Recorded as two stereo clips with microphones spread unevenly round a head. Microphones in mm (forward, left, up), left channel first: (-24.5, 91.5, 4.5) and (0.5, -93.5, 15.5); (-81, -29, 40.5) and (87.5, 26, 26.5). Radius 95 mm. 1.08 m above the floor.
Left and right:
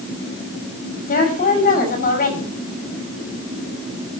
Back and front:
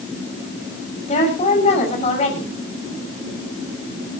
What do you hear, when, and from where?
1.1 s a woman speaking: 145° left, 5.5 m